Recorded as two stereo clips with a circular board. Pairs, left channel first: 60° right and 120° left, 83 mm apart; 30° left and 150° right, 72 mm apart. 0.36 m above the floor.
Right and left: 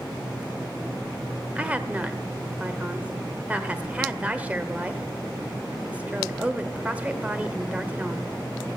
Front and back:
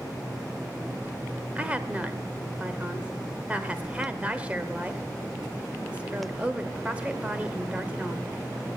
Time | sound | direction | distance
1.6 | a woman speaking | 165° left | 0.9 m